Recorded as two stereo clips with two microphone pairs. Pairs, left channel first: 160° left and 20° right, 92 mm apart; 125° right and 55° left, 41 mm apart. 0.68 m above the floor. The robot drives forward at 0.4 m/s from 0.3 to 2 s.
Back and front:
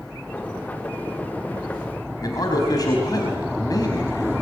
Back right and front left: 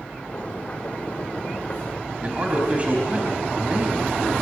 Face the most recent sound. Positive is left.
turn(degrees=115)